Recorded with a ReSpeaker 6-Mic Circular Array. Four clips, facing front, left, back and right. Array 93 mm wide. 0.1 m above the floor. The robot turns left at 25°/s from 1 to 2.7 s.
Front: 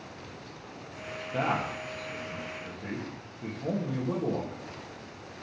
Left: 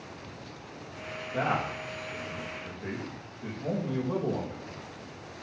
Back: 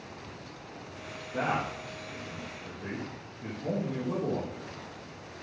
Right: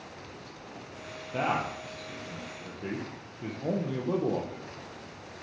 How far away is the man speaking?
About 2.5 m.